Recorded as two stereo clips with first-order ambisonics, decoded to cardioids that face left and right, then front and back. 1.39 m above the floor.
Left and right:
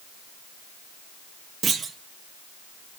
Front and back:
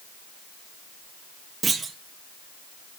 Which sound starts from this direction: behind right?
A clunk, at 1.6 s.